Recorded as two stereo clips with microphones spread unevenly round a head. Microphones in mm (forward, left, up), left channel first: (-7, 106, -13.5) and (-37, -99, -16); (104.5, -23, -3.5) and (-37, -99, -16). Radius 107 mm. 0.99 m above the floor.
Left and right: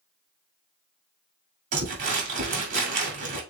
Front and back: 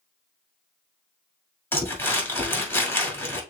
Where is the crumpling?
45° right, 2 m.